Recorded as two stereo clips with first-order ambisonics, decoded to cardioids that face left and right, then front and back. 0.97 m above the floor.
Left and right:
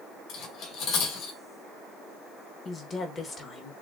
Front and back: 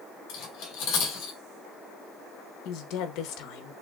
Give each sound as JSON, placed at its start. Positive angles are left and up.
{"t": 0.3, "sound": "cutlery clinking", "azimuth_deg": 45, "distance_m": 2.0}
{"t": 2.6, "sound": "a woman speaking", "azimuth_deg": 25, "distance_m": 1.0}